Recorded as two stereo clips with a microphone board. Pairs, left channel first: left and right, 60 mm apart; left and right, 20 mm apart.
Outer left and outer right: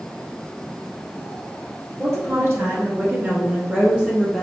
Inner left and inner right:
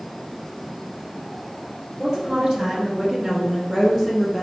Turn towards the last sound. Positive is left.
turn(degrees=-5)  # may be behind; listen again after turning